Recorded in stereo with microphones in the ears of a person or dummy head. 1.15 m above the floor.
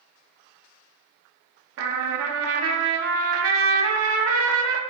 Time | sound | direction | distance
1.8 | a trumpet | 70° right (ahead or behind) | 0.6 m